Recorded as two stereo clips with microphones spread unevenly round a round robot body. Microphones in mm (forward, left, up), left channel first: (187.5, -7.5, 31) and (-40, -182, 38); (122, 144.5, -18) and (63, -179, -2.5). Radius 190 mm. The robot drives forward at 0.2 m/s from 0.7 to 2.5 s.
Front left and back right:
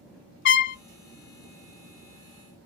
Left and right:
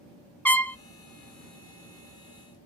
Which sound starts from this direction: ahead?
A trumpet, at 0.5 s.